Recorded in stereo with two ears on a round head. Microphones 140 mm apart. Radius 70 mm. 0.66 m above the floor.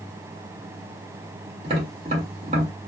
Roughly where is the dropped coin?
No dropped coin in this recording.